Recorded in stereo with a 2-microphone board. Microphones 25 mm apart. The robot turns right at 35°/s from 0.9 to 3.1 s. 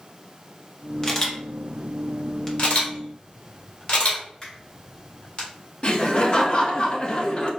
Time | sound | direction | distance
1.0 | a camera shutter | 20° left (ahead or behind) | 0.7 m
2.6 | a camera shutter | 60° left (ahead or behind) | 1.3 m
4.4 | a finger snap | 30° left (ahead or behind) | 1.6 m
5.8 | laughter | 35° left (ahead or behind) | 0.7 m